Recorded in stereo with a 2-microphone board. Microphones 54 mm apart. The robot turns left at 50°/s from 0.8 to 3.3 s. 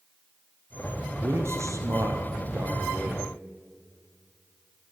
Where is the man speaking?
45° right, 3.5 m; by 3.3 s 150° right, 3.5 m.